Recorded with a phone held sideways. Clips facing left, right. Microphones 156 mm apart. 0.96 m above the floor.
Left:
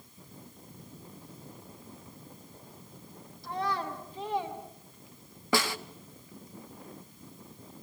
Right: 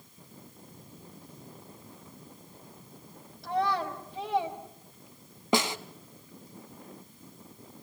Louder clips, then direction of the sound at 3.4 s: Right 4 dB; 70° right (ahead or behind).